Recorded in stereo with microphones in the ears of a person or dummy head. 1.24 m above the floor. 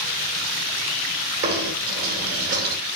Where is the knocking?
50° right (ahead or behind), 2.5 m.